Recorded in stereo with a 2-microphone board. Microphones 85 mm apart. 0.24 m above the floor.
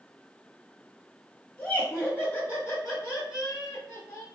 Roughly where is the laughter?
Left.